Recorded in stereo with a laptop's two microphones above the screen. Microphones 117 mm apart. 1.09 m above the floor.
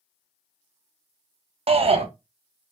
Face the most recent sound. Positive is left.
turn(degrees=-60)  # may be behind; listen again after turning